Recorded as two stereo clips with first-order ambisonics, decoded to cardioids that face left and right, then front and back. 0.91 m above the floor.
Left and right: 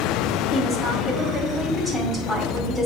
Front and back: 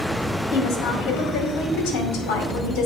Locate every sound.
0.5 s a woman speaking: 5° right, 2.5 m